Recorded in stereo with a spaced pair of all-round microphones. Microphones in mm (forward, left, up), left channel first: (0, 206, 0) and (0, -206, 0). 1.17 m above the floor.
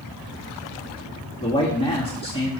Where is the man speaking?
15° left (ahead or behind), 2 m.